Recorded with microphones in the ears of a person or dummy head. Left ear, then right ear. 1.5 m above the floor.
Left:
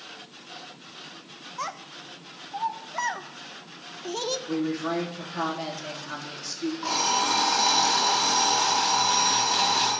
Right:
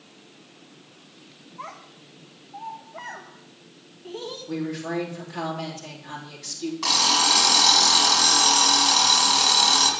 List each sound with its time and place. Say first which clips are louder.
1.6 s a child speaking: left 5 dB; 75° left (ahead or behind), 1.2 m
4.5 s a woman speaking: left 2 dB; 30° left (ahead or behind), 3.5 m
6.8 s an alarm clock: right 6 dB; 30° right (ahead or behind), 6.5 m